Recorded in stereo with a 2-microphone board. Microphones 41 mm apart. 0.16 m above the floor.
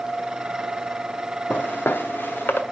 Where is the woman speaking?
I don't hear a woman speaking.